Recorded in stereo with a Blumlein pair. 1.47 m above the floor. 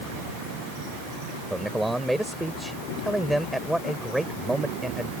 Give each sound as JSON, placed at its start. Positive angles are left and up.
{"t": 1.5, "sound": "a man speaking", "azimuth_deg": 0}